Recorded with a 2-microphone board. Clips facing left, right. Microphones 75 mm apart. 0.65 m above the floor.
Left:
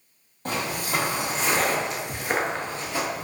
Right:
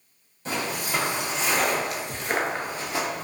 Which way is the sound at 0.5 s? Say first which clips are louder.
Left 1 dB; 50° left (ahead or behind).